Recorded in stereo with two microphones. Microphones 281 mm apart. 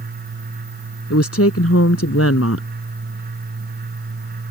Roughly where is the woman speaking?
Left.